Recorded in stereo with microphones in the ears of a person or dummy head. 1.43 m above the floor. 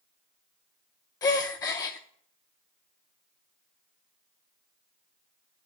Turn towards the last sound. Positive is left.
turn(degrees=20)  # may be behind; listen again after turning